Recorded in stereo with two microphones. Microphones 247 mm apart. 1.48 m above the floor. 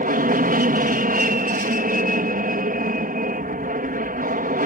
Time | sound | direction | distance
0.0 | an aircraft | 35° right (ahead or behind) | ?